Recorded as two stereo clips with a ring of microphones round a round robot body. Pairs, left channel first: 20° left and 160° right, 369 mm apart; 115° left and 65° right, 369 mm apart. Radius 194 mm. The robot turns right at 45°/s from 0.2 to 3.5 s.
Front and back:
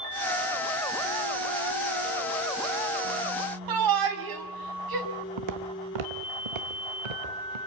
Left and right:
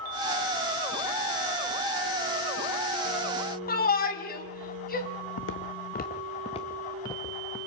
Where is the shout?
Straight behind, 3.5 m.